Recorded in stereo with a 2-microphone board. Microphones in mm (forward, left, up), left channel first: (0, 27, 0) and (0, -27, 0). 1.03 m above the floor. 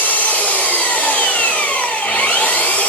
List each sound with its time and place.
0.0 s an engine running: 25° left (ahead or behind), 6.5 m